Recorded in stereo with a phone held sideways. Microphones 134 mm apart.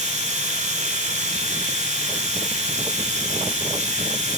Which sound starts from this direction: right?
A machine running, at 0.0 s.